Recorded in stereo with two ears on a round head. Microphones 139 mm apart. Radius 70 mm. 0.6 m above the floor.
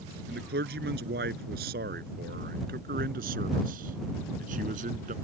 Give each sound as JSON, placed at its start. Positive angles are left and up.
{"t": 0.3, "sound": "a man speaking", "side_deg": -70}